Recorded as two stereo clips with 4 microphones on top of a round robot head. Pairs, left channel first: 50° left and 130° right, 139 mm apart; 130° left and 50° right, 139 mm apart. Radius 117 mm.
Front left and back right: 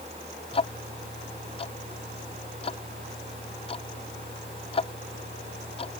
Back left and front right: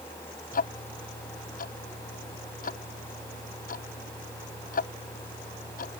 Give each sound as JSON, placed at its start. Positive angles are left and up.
{"t": 0.5, "sound": "ticking", "azimuth_deg": 105}